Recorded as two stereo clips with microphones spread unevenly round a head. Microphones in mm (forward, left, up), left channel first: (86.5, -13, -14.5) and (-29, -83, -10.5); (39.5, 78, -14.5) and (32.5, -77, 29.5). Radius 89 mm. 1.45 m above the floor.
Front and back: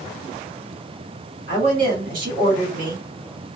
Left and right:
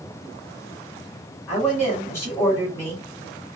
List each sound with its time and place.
1.5 s a woman speaking: 165° left, 1.5 m